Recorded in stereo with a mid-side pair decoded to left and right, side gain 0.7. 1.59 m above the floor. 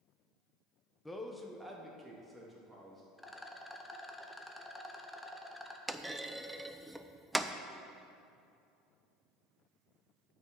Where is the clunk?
10° right, 0.5 m.